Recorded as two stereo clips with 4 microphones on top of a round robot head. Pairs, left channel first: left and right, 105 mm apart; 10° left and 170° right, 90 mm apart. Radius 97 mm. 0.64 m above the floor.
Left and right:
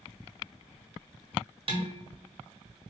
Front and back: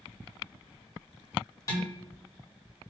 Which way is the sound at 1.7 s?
50° right.